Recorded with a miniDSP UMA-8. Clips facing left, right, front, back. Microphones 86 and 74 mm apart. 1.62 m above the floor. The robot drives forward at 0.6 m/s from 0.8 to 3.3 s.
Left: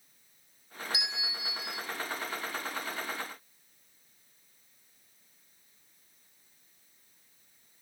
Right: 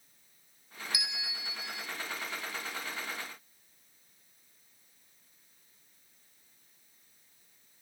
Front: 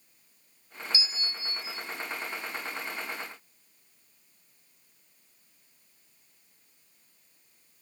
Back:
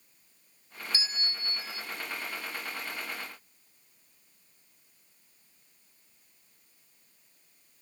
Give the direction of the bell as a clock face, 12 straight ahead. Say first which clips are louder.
Left 2 dB, even; 7 o'clock.